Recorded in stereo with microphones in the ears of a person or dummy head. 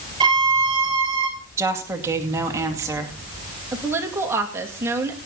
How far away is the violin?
About 4.5 m.